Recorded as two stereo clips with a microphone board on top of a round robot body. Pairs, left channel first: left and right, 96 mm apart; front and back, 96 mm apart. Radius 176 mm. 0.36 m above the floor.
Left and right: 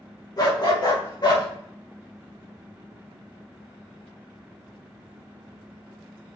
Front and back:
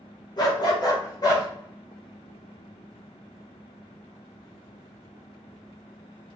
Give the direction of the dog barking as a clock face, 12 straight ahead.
11 o'clock.